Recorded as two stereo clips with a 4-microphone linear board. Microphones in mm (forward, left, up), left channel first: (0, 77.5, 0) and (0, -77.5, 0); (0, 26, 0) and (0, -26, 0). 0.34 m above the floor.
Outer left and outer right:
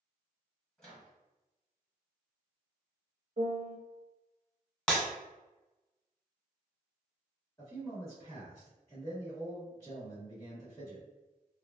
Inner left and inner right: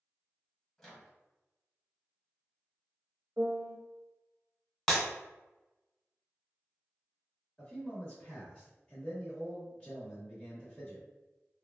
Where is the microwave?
5° left (ahead or behind), 1.7 m.